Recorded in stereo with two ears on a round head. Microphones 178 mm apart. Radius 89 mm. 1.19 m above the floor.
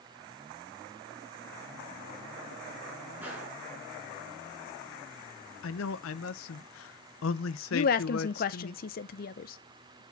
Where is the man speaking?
70° left (ahead or behind), 0.6 m.